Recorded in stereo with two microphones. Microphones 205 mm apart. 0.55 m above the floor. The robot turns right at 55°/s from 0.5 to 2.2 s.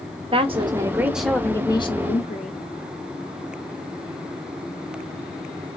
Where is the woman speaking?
40° right, 1.0 m; by 2.6 s 55° left, 1.0 m.